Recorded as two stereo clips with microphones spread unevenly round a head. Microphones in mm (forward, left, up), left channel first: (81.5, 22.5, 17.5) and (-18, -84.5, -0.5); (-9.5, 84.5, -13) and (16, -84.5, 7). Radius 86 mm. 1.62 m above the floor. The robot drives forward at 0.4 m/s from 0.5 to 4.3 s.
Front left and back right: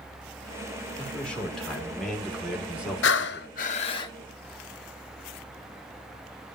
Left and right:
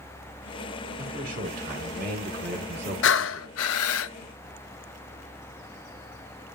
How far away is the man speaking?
About 2.5 m.